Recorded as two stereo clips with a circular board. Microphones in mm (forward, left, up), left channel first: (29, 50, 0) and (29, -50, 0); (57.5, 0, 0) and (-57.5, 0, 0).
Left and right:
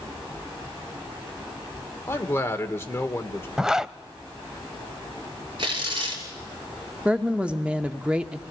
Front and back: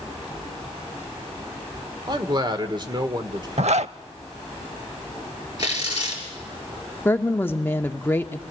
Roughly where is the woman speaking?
Ahead right.